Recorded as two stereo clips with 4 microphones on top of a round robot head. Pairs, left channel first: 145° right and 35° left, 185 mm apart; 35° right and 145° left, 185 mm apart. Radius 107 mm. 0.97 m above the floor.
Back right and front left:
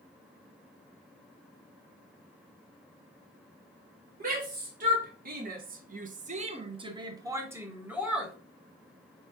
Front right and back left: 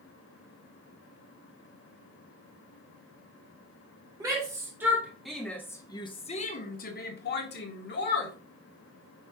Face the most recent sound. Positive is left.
turn(degrees=-50)